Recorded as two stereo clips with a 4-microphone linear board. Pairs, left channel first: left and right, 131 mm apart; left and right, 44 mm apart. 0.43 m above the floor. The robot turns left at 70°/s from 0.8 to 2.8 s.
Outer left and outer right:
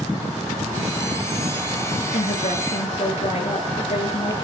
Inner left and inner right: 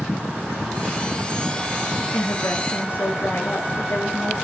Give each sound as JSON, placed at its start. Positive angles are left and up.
{"t": 2.1, "sound": "a woman speaking", "azimuth_deg": 105, "distance_m": 6.5}